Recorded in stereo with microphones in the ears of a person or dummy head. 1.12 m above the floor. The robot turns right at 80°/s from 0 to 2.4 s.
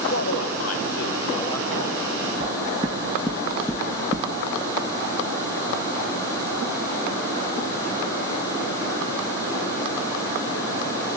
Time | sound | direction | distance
0.1 | a man speaking | 45° left | 0.9 m
2.4 | knocking | centre (ahead or behind) | 0.7 m